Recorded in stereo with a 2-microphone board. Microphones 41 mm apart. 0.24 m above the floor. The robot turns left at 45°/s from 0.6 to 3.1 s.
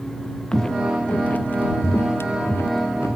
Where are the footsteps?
20° left (ahead or behind); by 3.2 s 70° left (ahead or behind).